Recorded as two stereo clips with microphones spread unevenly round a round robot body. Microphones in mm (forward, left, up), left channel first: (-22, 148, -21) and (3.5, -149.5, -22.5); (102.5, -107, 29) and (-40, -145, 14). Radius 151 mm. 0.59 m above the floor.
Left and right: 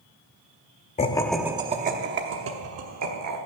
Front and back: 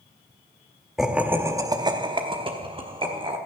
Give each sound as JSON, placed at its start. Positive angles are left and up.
{"t": 1.0, "sound": "laughter", "azimuth_deg": 125, "distance_m": 0.6}